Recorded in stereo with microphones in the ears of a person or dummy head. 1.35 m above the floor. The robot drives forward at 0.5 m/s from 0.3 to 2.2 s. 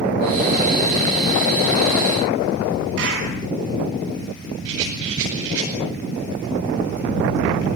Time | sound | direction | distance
3.0 | a clap | 65° right (ahead or behind) | 10 m
4.7 | a rattle | 70° right (ahead or behind) | 8.5 m